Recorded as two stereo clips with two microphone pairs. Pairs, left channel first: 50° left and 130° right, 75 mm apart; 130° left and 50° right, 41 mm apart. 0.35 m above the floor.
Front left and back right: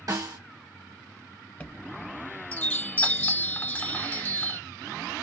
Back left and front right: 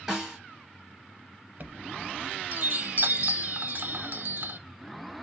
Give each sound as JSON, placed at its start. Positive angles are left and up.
{"t": 0.1, "sound": "a snare drum", "azimuth_deg": -130, "distance_m": 1.4}
{"t": 1.6, "sound": "a chime", "azimuth_deg": -15, "distance_m": 0.7}